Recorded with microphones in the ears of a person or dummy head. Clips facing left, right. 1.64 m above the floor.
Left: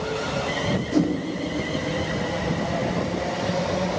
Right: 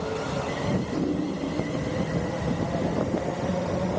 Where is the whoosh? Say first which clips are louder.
Left 8 dB; 65° left (ahead or behind), 0.9 m.